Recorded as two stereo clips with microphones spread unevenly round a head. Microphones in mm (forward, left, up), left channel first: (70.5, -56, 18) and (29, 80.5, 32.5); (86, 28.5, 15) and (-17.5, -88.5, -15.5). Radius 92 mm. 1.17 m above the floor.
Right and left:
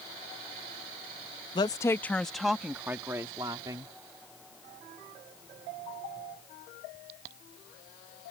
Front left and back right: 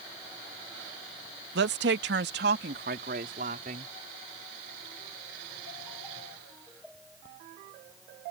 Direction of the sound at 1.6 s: 135° right.